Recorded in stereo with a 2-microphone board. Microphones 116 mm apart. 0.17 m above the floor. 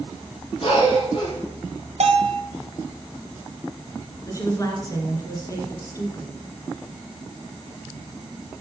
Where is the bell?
70° right (ahead or behind), 1.5 m.